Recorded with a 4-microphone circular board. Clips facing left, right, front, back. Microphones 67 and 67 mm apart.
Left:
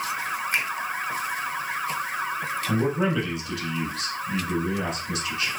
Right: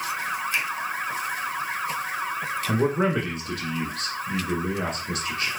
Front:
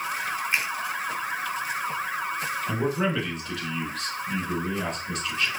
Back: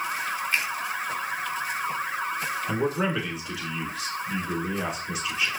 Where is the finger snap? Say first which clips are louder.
Left 3 dB, front 1 dB; 65° left, 1.3 m.